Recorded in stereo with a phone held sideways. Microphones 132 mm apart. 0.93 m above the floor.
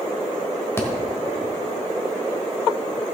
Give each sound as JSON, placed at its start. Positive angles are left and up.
{"t": 0.8, "sound": "a thud", "side_deg": 20, "distance_m": 1.4}